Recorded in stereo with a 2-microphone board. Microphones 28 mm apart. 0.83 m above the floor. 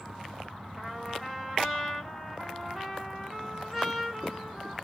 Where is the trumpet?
10° left (ahead or behind), 2.5 m.